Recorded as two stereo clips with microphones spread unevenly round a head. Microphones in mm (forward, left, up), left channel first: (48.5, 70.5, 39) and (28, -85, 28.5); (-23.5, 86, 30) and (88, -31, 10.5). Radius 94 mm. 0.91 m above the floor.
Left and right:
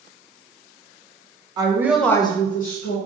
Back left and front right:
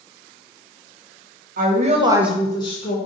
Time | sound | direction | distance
1.6 | a woman speaking | 40° right | 0.8 m